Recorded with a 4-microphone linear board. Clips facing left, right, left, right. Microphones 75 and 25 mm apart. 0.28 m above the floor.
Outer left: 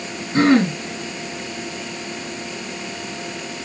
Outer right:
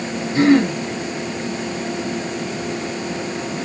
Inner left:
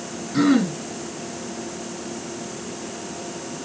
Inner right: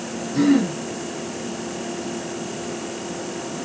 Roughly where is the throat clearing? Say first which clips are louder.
Outer right 1 dB, even; left.